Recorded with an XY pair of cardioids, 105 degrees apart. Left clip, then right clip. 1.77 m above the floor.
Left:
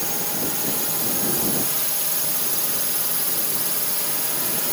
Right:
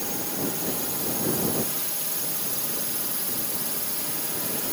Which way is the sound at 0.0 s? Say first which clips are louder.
Left 3 dB; 35° left.